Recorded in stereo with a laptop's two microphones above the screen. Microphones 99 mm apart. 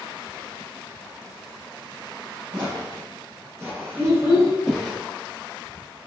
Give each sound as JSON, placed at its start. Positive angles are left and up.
{"t": 2.5, "sound": "footsteps", "side_deg": -45, "distance_m": 1.3}
{"t": 4.0, "sound": "a child speaking", "side_deg": -40, "distance_m": 1.5}